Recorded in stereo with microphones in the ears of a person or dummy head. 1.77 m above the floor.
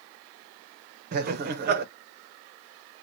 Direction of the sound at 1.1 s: 50° right (ahead or behind).